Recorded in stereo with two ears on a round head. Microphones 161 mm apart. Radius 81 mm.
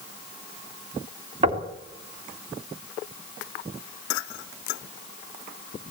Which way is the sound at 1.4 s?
35° right (ahead or behind).